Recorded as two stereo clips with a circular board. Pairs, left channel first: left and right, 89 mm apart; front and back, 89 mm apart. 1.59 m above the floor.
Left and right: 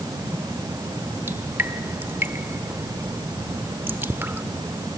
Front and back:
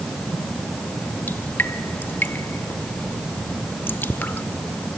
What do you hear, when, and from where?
1.3 s dripping: 45° right, 1.4 m